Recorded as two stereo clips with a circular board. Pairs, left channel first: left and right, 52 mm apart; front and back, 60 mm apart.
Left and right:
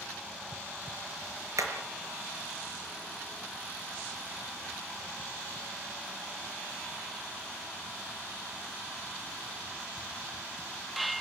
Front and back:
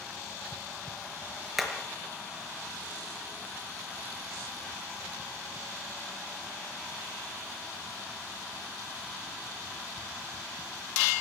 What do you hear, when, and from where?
1.6 s hammering: 95° right, 5 m